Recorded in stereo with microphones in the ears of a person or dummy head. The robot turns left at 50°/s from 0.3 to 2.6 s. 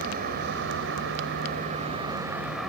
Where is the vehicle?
70° right; by 2.7 s 175° left.